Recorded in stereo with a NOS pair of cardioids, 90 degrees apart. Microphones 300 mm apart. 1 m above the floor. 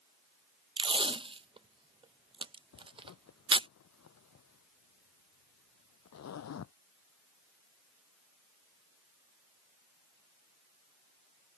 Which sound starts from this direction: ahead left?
A zipper, at 2.7 s.